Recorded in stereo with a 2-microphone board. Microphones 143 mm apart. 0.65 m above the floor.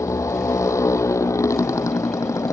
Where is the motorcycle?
20° left (ahead or behind).